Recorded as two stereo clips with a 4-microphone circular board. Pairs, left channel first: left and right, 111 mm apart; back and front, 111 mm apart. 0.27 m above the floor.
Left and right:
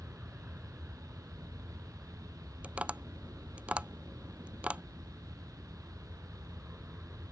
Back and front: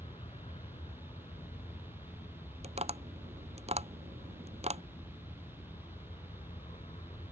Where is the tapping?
10° right.